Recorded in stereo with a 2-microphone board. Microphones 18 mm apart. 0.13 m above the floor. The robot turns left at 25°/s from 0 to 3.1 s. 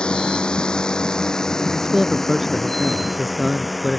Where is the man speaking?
145° right; by 4.0 s 175° right.